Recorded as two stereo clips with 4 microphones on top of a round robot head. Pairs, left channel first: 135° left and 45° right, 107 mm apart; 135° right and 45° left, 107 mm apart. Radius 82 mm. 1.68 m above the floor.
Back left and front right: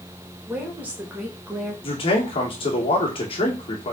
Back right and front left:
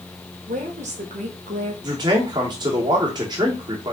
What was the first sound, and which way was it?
A woman speaking, 30° left.